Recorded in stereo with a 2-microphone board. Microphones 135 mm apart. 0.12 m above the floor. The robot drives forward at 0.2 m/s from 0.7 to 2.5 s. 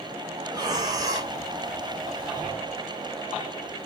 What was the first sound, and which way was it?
Breathing, 30° right (ahead or behind).